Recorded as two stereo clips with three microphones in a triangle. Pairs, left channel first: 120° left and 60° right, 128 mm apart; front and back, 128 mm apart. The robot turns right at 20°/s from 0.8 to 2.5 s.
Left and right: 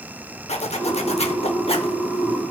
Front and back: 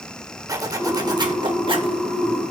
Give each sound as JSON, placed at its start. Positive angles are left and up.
{"t": 0.5, "sound": "a zipper", "azimuth_deg": 125, "distance_m": 0.9}